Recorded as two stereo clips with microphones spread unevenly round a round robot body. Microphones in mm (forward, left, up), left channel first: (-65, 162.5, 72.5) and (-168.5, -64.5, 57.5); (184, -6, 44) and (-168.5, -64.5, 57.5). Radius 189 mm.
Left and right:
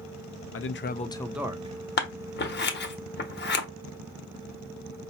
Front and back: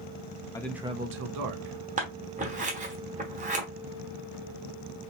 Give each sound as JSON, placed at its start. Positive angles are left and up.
{"t": 0.5, "sound": "a man speaking", "azimuth_deg": 85, "distance_m": 0.6}
{"t": 2.0, "sound": "scissors", "azimuth_deg": 115, "distance_m": 1.0}